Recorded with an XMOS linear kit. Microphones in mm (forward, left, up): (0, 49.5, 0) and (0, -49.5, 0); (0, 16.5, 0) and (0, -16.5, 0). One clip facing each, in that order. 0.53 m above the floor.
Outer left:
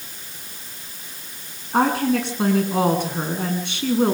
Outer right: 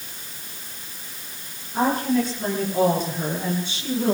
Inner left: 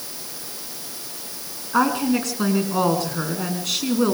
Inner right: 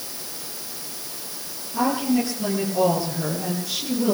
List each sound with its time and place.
1.7 s a woman speaking: 75° left (ahead or behind), 6.5 m; by 4.1 s 60° left (ahead or behind), 6.5 m